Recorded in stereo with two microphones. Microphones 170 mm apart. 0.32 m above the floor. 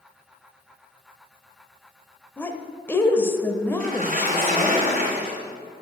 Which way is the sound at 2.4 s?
15° left (ahead or behind).